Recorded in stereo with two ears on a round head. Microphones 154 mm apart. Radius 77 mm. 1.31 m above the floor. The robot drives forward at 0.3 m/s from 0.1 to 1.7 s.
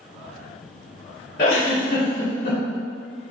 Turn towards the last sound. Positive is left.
turn(degrees=50)  # may be behind; listen again after turning